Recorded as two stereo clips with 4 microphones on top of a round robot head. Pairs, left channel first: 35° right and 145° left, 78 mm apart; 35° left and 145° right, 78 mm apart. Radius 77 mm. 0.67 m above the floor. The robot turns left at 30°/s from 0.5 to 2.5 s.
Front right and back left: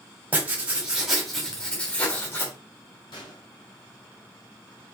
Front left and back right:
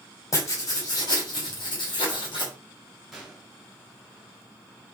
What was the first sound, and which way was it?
Writing, 75° left.